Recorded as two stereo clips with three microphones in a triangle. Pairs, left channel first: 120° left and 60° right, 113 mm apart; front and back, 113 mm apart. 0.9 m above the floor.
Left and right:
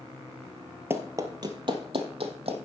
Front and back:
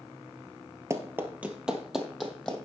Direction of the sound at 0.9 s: 120° right.